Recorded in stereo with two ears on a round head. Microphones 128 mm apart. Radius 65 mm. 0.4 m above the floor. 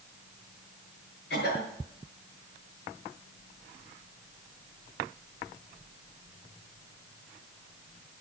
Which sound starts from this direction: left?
A cough, at 1.3 s.